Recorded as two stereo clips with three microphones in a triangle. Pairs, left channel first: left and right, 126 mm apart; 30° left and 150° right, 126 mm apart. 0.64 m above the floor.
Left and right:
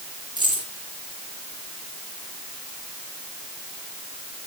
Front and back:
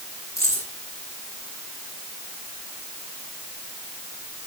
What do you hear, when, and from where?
0.4 s keys jangling: 35° right, 7.5 m